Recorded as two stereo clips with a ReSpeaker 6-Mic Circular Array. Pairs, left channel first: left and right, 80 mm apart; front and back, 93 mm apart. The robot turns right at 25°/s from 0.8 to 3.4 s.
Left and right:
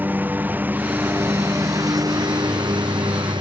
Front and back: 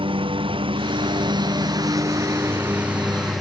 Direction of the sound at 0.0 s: 155° right.